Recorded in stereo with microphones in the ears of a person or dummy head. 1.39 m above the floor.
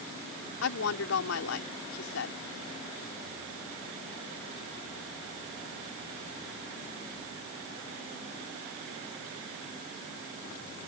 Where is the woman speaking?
85° left.